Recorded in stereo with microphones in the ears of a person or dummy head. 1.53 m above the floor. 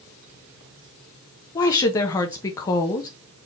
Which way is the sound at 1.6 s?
20° left (ahead or behind).